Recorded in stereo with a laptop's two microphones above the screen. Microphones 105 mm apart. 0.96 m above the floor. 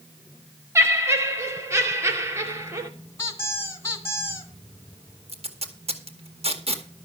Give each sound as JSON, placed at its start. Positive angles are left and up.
{"t": 0.8, "sound": "laughter", "side_deg": -25, "distance_m": 3.0}
{"t": 3.2, "sound": "a squeak", "side_deg": 25, "distance_m": 3.0}
{"t": 5.3, "sound": "tape being pulled", "side_deg": -60, "distance_m": 1.9}